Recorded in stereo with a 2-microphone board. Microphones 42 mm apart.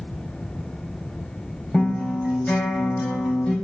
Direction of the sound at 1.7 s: 20° left (ahead or behind).